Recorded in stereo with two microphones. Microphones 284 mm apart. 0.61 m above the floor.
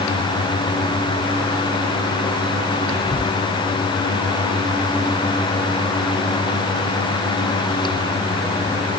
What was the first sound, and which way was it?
Whispering, centre (ahead or behind).